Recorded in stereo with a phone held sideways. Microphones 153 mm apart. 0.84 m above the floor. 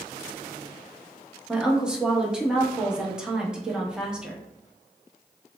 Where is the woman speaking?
5° right (ahead or behind), 0.9 m.